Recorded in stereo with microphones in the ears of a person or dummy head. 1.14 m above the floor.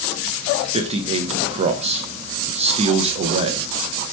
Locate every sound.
0.7 s a man speaking: 30° right (ahead or behind), 0.5 m